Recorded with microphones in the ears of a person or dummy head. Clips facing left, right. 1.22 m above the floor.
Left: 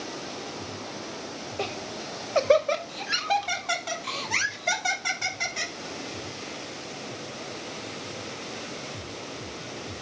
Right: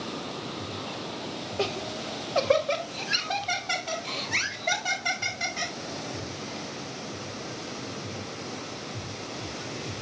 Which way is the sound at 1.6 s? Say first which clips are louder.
Right 3 dB; 5° right (ahead or behind).